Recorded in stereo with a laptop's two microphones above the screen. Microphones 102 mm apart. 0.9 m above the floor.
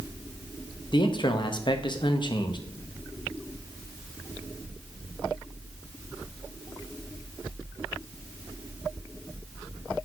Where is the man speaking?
50° left (ahead or behind), 0.6 m.